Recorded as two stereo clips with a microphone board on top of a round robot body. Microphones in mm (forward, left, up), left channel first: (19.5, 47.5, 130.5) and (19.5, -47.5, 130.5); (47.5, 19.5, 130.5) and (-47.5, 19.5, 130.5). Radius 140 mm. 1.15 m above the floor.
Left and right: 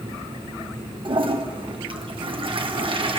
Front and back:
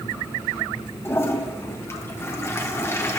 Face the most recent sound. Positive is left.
turn(degrees=-65)